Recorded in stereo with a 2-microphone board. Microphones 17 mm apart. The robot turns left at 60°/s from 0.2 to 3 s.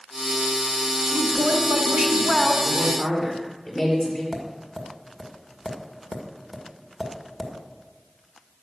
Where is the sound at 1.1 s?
100° right, 1.7 m; by 2.5 s 175° left, 1.7 m.